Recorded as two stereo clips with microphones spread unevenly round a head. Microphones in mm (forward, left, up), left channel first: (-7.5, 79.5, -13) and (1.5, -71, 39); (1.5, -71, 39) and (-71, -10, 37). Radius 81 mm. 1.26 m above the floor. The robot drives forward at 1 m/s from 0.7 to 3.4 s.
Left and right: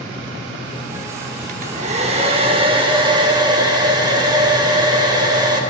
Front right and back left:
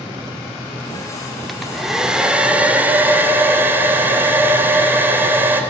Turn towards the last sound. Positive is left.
turn(degrees=-150)